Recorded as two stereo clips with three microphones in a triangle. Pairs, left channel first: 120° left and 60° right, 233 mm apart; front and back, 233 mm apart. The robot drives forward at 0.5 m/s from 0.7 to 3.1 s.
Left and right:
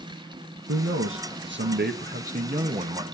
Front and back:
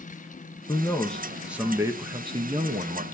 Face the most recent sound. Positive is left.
turn(degrees=-125)